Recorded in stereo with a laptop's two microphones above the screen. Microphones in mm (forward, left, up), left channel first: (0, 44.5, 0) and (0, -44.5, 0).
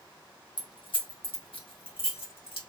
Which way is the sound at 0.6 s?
55° left (ahead or behind).